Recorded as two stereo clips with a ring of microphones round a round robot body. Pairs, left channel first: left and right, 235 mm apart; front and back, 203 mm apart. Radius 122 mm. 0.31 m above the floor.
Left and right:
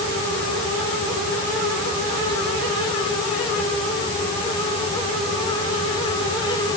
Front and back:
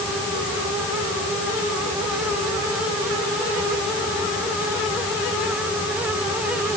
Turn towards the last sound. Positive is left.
No sound to turn to.